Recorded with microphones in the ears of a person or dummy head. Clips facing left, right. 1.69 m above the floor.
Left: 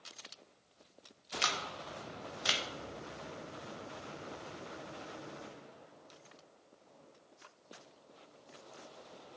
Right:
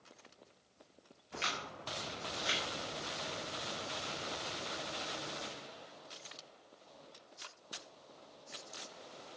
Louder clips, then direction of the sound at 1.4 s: Left 3 dB; 55° left (ahead or behind).